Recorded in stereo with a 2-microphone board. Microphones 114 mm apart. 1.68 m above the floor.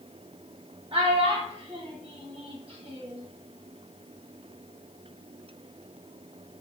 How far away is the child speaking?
About 1.8 m.